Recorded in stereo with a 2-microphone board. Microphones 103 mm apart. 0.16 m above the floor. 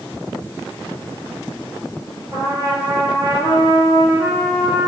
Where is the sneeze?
No sneeze in this recording.